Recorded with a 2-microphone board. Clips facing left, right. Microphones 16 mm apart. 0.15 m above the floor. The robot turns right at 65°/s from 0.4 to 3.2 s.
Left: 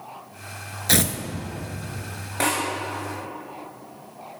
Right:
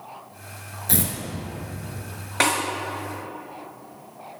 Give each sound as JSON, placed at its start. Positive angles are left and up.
{"t": 0.9, "sound": "tearing paper", "side_deg": 65, "distance_m": 0.5}
{"t": 2.4, "sound": "a snare drum", "side_deg": -40, "distance_m": 2.5}